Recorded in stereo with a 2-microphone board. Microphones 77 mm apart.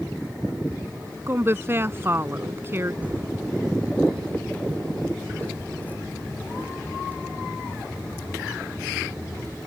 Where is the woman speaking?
30° right (ahead or behind).